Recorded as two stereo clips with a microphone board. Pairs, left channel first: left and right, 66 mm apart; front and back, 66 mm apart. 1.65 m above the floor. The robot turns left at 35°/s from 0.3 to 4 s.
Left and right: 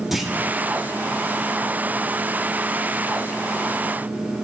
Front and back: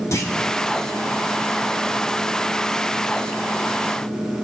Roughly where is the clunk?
Ahead.